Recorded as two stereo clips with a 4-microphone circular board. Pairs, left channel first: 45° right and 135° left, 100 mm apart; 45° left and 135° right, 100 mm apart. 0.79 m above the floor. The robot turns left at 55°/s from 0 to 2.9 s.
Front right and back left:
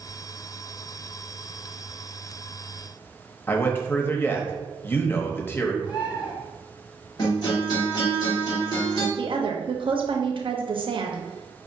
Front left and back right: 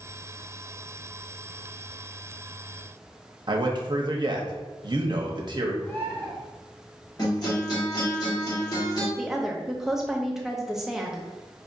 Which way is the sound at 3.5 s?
110° right.